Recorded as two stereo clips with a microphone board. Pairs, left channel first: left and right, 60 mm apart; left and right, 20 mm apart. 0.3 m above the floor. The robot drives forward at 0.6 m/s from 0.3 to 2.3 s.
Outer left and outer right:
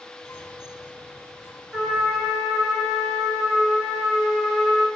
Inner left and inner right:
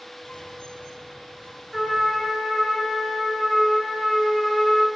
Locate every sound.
1.7 s a trumpet: 5° right (ahead or behind), 2.5 m